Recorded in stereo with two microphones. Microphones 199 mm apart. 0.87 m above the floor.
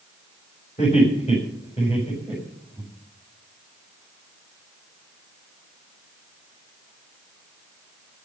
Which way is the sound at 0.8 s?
35° left (ahead or behind).